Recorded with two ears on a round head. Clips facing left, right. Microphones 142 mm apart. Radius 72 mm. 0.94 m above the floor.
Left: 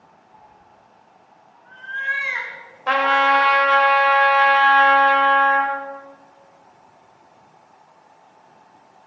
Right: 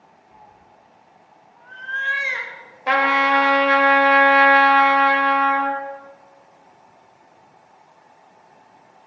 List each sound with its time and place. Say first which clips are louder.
0.3 s a cat meowing: right 1 dB; 70° right (ahead or behind), 1.5 m; by 3.6 s 10° right (ahead or behind), 2.0 m
2.9 s a trumpet: left 1 dB; 10° right (ahead or behind), 1.2 m